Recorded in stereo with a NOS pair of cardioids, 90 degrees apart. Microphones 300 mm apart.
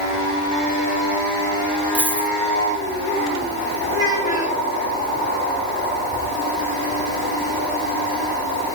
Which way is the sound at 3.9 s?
45° left.